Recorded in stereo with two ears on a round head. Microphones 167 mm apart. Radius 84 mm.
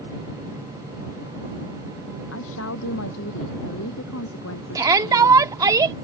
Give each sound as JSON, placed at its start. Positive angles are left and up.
{"t": 2.3, "sound": "a woman speaking", "side_deg": 80}
{"t": 4.8, "sound": "a shout", "side_deg": -20}